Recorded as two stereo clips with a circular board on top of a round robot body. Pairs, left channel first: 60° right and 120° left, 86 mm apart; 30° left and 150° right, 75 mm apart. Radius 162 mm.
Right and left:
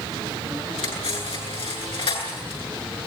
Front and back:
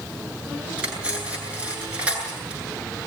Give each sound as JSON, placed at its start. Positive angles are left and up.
{"t": 0.8, "sound": "cutlery clinking", "azimuth_deg": -75, "distance_m": 8.5}